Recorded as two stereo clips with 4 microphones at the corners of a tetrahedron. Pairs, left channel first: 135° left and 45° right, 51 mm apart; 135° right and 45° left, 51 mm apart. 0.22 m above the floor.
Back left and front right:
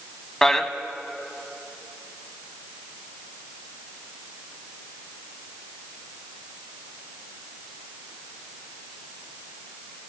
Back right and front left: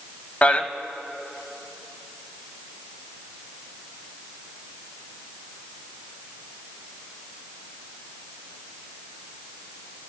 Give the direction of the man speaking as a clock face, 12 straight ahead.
5 o'clock.